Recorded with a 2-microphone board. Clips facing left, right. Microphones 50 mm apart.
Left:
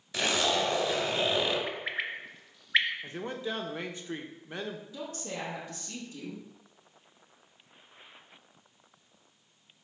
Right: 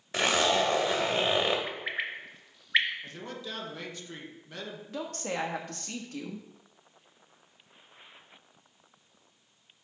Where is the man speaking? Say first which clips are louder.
Left 5 dB; 25° left (ahead or behind), 0.9 m.